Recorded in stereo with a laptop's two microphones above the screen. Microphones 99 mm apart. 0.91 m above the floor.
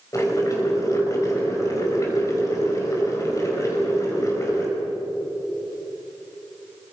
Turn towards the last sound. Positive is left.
turn(degrees=35)  # may be behind; listen again after turning